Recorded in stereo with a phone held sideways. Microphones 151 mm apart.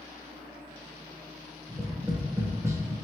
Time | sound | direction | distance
1.7 | tapping | 20° right (ahead or behind) | 0.6 m